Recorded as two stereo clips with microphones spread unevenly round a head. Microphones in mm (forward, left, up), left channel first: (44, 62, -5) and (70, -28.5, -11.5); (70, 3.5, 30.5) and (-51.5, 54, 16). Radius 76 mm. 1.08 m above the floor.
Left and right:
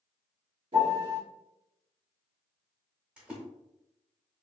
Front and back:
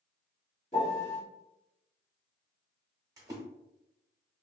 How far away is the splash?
About 0.8 m.